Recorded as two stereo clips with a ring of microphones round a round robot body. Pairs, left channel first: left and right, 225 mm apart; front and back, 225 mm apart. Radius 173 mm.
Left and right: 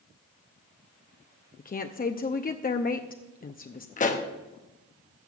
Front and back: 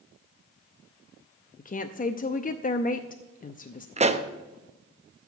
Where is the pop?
130° left, 0.9 m.